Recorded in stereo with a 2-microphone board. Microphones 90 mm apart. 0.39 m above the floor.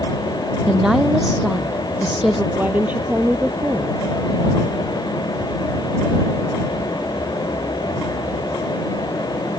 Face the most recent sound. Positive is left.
turn(degrees=-20)  # may be behind; listen again after turning